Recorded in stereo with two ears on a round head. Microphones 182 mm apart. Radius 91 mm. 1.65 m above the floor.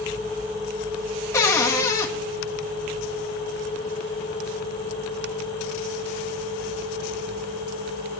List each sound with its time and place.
1.3 s a cupboard door: 15° left (ahead or behind), 1.1 m